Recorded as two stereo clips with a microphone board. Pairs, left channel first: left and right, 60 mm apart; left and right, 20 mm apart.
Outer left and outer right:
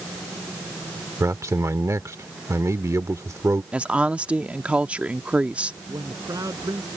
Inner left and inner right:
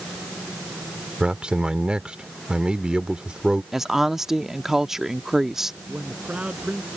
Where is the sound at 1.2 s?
55° right (ahead or behind).